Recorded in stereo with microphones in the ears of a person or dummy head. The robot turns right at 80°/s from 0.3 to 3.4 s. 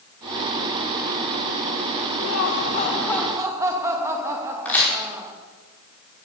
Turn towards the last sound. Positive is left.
turn(degrees=5)  # may be behind; listen again after turning